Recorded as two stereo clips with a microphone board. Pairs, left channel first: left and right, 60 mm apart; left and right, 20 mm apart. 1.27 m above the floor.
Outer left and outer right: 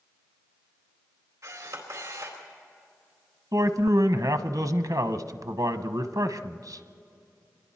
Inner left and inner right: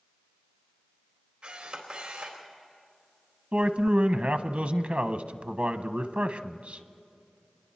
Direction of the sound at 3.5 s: 80° right.